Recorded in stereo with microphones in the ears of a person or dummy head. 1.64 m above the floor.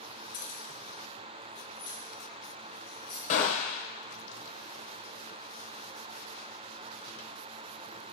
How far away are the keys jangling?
About 1.5 m.